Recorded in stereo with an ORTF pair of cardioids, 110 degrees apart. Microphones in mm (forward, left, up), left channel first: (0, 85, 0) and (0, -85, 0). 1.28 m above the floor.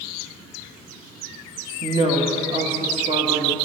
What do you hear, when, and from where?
1.8 s a woman speaking: 30° right, 1.8 m